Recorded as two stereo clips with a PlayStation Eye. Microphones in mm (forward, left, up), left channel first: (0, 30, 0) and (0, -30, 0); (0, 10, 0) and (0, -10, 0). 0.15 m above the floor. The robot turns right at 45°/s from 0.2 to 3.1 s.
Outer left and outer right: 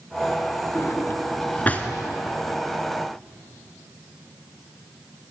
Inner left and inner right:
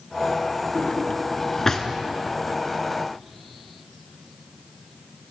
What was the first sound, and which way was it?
A drawer, 50° left (ahead or behind).